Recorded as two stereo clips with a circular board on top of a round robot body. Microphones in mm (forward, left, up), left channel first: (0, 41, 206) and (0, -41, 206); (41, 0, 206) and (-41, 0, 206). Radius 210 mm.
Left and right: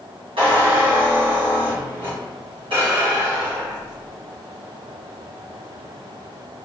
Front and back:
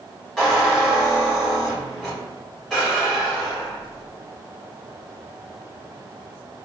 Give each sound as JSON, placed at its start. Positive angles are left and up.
{"t": 0.4, "sound": "a squeak", "azimuth_deg": -95, "distance_m": 1.2}